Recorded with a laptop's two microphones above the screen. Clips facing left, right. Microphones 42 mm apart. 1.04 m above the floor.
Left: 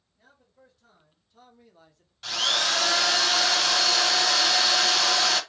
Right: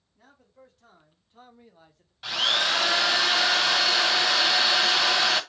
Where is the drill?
15° right (ahead or behind), 0.6 m.